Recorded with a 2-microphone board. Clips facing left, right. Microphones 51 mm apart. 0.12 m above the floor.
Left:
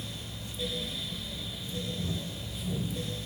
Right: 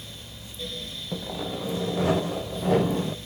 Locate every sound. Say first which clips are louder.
1.1 s sawing: right 8 dB; 70° right (ahead or behind)